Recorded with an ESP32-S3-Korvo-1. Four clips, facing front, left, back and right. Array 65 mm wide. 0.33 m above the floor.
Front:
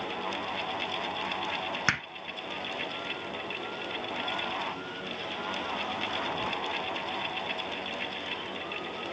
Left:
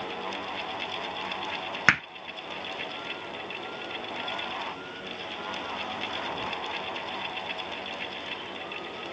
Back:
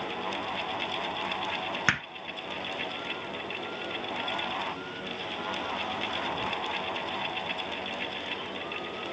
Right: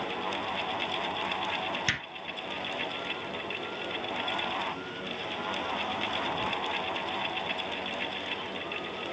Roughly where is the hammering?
Left.